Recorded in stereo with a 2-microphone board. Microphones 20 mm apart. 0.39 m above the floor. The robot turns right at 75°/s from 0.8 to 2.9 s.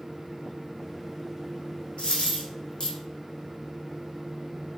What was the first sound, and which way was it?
A dropped coin, 60° left (ahead or behind).